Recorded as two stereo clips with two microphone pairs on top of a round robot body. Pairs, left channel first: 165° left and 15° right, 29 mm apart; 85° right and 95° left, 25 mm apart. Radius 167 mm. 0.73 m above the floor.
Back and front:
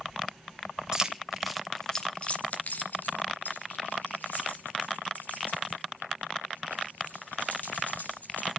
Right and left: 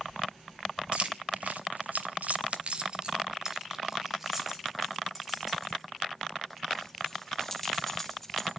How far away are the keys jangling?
About 1.5 m.